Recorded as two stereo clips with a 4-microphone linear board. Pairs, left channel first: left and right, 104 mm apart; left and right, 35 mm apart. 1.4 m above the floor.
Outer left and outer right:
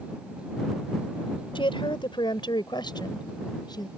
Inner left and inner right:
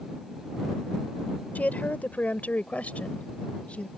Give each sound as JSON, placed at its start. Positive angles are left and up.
{"t": 1.6, "sound": "a woman speaking", "side_deg": 55}